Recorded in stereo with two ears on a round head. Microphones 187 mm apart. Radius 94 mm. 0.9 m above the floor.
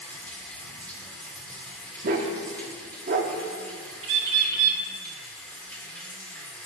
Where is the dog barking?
40° right (ahead or behind), 0.7 m.